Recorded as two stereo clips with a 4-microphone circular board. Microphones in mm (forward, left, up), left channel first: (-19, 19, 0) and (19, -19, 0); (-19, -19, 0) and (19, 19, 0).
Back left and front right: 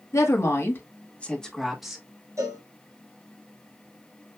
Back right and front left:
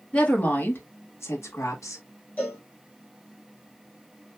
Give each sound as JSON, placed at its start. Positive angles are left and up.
{"t": 0.1, "sound": "a woman speaking", "azimuth_deg": 160, "distance_m": 2.0}
{"t": 2.4, "sound": "a cowbell", "azimuth_deg": -75, "distance_m": 3.5}